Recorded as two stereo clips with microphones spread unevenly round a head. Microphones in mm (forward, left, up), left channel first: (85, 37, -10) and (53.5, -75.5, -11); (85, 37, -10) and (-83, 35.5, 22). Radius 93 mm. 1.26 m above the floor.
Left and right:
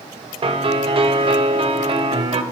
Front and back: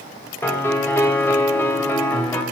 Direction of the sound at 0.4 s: 85° right.